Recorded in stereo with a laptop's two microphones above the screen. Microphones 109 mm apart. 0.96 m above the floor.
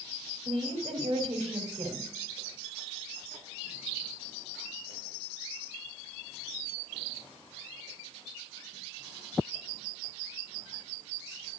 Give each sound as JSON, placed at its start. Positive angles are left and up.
{"t": 0.5, "sound": "a woman speaking", "side_deg": -70, "distance_m": 2.5}